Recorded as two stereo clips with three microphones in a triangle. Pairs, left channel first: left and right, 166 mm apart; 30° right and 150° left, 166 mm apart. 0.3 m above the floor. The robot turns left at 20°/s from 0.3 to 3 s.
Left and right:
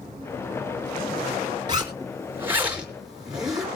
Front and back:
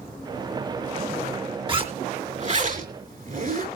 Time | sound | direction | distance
1.7 | a zipper | 150° right | 4.5 m